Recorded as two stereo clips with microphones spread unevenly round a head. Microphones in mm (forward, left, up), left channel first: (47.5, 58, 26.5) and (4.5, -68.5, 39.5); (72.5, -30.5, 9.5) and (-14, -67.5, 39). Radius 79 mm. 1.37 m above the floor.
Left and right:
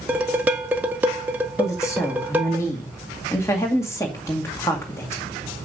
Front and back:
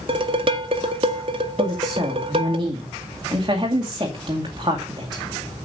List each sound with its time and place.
0.1 s dishes clattering: 175° left, 0.8 m
1.6 s a woman speaking: 145° left, 1.9 m